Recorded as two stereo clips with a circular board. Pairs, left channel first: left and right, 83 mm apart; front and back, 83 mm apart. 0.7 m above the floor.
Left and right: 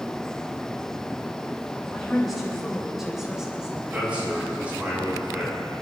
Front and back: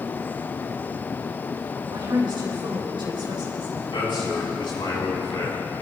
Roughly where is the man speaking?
Ahead.